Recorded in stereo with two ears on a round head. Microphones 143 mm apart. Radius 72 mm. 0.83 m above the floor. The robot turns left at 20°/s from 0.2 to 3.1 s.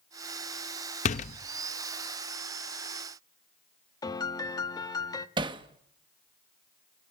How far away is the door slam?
About 0.7 m.